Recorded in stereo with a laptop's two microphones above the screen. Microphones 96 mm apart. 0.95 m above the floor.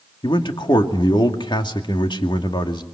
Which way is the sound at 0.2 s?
55° left (ahead or behind).